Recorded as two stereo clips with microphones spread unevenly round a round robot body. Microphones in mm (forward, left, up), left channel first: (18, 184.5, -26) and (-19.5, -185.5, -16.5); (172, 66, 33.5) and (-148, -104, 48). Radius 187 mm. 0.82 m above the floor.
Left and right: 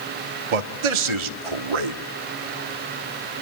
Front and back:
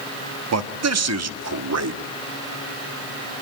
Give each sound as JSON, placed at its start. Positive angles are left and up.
{"t": 0.5, "sound": "a man speaking", "azimuth_deg": -100, "distance_m": 1.3}